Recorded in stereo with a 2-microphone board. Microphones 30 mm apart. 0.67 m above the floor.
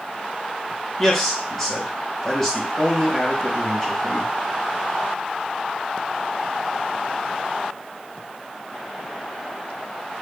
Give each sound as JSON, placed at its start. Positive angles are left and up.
{"t": 1.0, "sound": "a man speaking", "side_deg": 15, "distance_m": 1.2}